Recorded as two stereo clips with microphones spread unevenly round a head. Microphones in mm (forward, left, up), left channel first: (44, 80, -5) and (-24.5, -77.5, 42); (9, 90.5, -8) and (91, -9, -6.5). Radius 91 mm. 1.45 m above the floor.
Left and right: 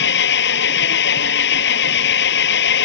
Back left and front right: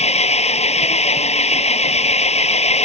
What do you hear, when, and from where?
0.0 s an engine running: 95° left